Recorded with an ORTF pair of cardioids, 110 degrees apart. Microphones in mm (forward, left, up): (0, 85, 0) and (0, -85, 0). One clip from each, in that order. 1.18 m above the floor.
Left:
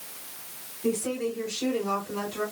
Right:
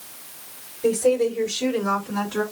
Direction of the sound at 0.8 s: 65° right.